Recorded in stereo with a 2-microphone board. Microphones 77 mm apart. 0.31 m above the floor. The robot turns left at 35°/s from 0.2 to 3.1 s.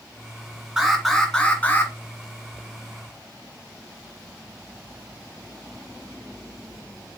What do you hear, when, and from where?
0.8 s an alarm: 170° right, 1.9 m; by 1.9 s 150° left, 1.9 m